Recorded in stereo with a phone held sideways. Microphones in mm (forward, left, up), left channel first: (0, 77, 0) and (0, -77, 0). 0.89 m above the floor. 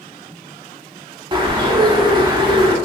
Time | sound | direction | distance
1.3 | a bird | 30° right (ahead or behind) | 0.8 m